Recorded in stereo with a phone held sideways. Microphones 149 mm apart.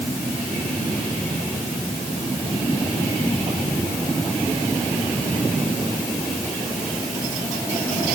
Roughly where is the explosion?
I don't hear an explosion.